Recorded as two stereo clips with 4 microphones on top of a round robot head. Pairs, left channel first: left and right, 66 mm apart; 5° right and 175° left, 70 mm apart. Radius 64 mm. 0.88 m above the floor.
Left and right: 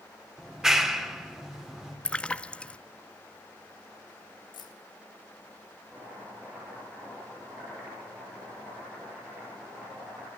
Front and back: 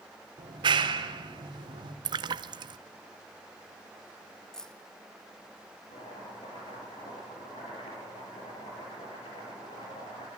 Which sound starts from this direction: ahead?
Chopping, at 5.9 s.